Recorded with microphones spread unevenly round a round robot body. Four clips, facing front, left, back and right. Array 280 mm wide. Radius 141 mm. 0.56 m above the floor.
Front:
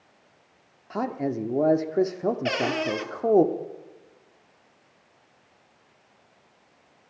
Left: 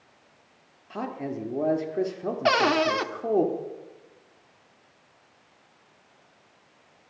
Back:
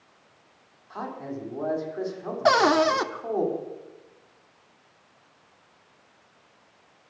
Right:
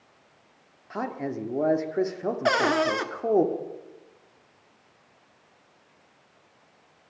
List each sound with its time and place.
0.9 s a man speaking: 5° right, 1.4 m
2.5 s a cupboard door: 175° left, 1.2 m